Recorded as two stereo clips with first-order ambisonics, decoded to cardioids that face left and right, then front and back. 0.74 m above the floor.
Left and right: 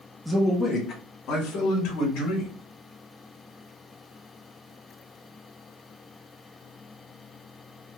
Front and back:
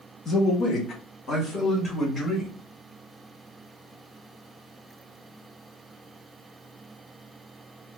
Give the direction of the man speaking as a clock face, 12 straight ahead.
12 o'clock.